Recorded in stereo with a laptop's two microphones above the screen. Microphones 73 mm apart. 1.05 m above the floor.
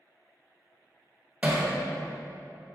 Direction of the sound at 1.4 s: 20° right (ahead or behind).